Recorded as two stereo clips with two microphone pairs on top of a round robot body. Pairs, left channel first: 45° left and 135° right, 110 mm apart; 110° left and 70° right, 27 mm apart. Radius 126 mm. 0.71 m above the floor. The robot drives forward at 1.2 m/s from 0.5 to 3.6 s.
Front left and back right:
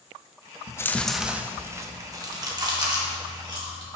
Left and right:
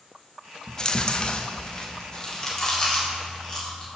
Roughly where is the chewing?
Ahead left.